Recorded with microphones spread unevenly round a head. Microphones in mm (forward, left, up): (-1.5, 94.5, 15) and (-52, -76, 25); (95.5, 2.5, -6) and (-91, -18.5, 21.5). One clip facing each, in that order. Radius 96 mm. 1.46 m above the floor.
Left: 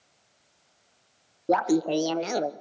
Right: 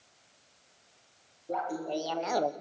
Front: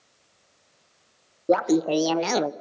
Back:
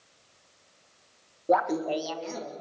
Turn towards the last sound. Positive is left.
turn(degrees=-10)